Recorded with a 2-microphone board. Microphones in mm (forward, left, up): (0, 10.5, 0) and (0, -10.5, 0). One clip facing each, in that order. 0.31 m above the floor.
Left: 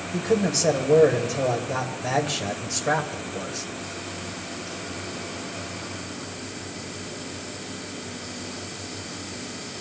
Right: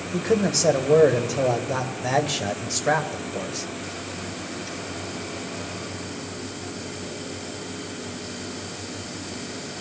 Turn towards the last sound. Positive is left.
turn(degrees=-10)  # may be behind; listen again after turning